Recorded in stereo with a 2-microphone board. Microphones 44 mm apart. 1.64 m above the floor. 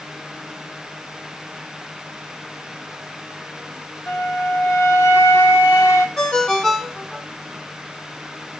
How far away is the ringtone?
About 0.7 m.